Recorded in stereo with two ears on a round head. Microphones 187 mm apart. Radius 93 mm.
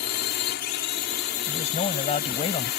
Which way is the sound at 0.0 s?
55° left (ahead or behind).